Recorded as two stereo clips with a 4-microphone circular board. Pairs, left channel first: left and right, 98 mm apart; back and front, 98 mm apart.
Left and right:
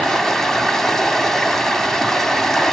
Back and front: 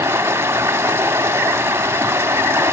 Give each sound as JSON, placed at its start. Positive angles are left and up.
{"t": 0.0, "sound": "running water", "azimuth_deg": 10, "distance_m": 0.7}